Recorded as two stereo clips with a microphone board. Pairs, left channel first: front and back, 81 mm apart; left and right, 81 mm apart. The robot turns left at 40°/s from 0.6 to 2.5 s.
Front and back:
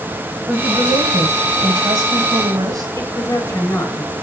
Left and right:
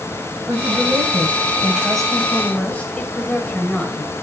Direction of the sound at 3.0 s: 25° left.